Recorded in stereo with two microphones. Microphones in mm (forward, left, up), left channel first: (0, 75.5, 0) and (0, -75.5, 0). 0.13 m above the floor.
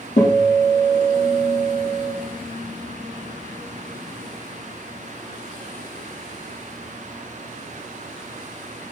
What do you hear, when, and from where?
0.2 s a guitar: 50° left (ahead or behind), 5.5 m